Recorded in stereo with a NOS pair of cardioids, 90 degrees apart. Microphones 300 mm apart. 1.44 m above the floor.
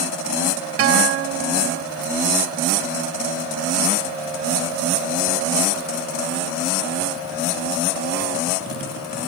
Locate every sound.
0.8 s a guitar: 50° right